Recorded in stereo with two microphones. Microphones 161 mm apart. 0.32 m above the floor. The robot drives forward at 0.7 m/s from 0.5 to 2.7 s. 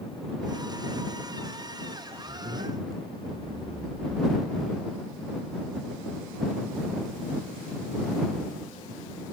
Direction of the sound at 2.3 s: 75° right (ahead or behind).